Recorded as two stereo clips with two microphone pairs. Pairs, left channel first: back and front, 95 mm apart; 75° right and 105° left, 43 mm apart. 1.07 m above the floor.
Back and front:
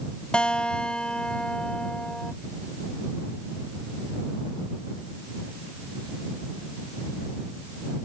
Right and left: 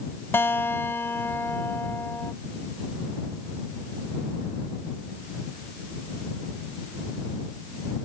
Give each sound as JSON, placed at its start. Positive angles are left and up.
{"t": 0.3, "sound": "a guitar", "azimuth_deg": -100}